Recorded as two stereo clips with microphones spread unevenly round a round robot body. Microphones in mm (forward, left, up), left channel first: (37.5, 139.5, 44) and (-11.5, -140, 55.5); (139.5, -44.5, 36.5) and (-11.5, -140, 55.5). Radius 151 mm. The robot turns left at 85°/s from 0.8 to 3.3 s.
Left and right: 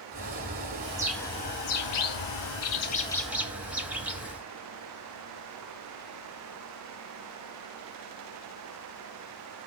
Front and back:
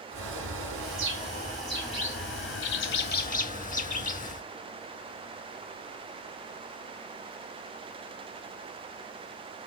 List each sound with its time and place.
0.1 s a bird: 160° right, 1.0 m; by 4.4 s 15° right, 1.0 m